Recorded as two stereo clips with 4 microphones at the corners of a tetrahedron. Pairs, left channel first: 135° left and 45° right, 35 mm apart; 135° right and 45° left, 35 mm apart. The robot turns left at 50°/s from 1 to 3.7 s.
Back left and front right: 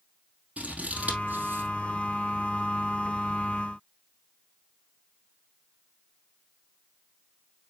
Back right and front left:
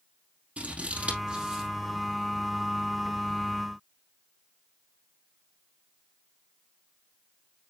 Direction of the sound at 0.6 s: Straight ahead.